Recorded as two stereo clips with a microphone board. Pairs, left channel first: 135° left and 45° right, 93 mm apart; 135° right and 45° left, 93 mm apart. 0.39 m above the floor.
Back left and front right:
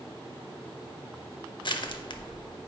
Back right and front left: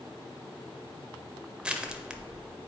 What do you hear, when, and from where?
1.6 s crushing: 120° left, 0.6 m